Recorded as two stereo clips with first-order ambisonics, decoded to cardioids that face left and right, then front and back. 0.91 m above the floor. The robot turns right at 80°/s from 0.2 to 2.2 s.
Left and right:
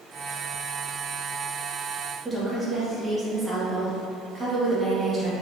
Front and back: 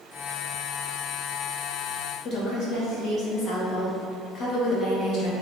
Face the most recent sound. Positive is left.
turn(degrees=-15)